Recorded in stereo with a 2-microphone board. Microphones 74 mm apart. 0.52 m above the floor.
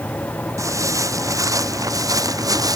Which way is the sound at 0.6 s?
50° right (ahead or behind).